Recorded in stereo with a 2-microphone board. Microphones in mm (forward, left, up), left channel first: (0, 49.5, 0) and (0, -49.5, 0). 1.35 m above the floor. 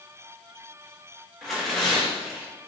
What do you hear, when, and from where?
1.4 s tearing paper: centre (ahead or behind), 1.1 m